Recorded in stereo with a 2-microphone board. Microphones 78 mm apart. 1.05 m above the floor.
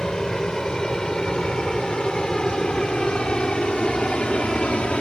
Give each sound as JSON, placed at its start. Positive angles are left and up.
{"t": 0.0, "sound": "an aircraft", "side_deg": 10}